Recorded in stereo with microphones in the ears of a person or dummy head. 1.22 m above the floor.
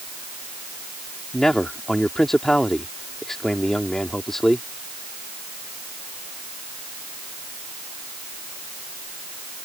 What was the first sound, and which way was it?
A man speaking, centre (ahead or behind).